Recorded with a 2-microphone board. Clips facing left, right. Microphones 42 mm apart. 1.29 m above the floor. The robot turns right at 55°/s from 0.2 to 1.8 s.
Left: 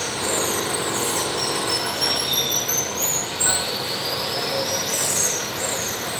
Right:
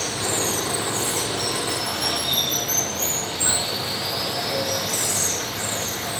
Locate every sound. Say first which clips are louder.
0.0 s running water: left 1 dB; 25° left, 2.5 m; by 6.2 s 115° left, 2.5 m